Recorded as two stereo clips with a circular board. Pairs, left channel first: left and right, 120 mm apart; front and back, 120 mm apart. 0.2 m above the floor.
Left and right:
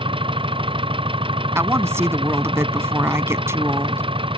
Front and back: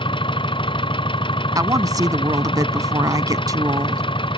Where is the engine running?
45° right.